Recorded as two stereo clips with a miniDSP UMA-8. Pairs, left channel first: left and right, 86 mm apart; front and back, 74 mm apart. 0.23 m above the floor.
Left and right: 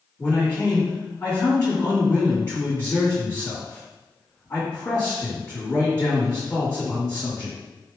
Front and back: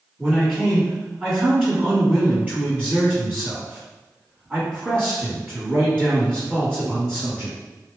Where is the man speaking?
120° left, 1.6 m.